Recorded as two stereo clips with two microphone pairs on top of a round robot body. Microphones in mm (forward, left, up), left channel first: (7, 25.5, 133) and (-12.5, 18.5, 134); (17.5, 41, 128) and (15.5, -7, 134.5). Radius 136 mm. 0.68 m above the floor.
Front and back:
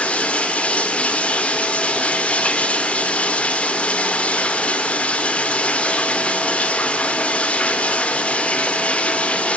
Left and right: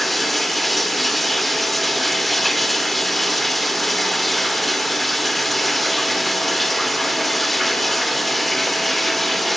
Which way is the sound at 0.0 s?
Straight ahead.